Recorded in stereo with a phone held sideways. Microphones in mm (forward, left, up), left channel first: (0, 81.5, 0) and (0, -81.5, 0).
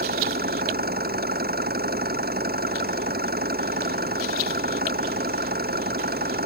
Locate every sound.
0.0 s an engine running: 75° right (ahead or behind)